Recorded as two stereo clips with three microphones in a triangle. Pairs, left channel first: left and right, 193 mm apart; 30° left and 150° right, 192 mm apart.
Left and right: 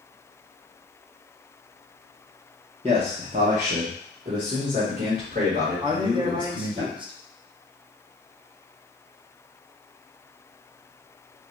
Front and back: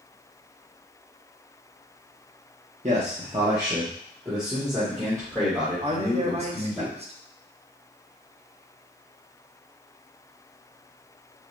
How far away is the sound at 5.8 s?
About 0.6 m.